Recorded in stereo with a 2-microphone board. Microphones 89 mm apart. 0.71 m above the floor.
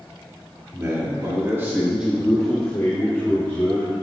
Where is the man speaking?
30° right (ahead or behind), 2 m; by 3.9 s 20° left (ahead or behind), 3.5 m.